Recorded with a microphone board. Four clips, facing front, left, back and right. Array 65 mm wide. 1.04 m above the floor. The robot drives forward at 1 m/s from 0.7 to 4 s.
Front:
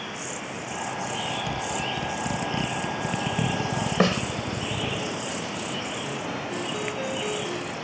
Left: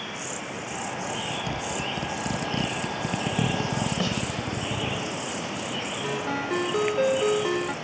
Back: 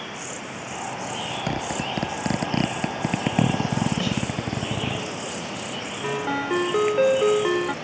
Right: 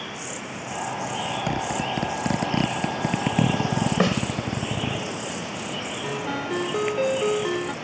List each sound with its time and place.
1.5 s a zipper: 145° right; by 5.0 s 150° right
4.0 s a snare drum: 35° right
6.0 s a ringtone: 175° left